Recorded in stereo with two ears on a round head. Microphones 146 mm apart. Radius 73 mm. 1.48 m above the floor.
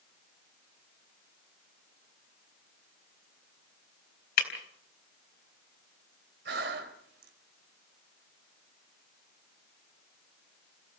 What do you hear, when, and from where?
4.4 s breaking glass: 65° left (ahead or behind), 4 m
6.5 s breathing: 65° right (ahead or behind), 3 m